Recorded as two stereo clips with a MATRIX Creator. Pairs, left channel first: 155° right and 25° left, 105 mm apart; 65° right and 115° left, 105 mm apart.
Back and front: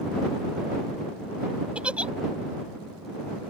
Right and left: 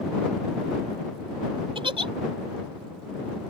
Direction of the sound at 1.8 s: 100° left.